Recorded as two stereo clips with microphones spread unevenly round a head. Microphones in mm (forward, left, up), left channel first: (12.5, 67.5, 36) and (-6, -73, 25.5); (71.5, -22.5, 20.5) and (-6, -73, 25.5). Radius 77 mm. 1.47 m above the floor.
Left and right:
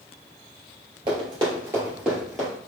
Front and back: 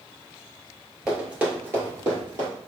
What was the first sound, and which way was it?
Running footsteps, 80° right.